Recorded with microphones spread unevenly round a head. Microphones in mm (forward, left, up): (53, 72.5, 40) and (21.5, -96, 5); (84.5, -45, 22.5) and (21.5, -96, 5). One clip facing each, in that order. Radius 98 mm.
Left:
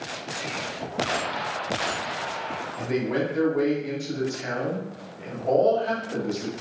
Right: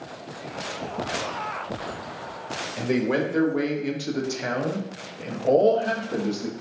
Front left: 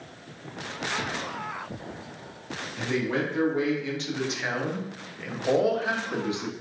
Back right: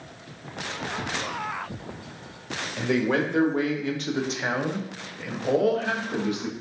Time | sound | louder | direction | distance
2.8 | a man speaking | right 2 dB, back right 4 dB | 130° right | 1.4 m